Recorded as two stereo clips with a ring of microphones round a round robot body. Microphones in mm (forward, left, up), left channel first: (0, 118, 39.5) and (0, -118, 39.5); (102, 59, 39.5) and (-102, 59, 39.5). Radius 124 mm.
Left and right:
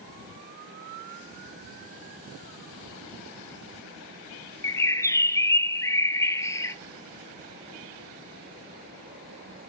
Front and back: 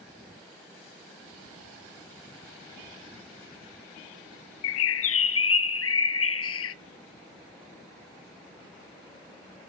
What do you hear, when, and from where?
4.6 s a bird: 10° left, 0.6 m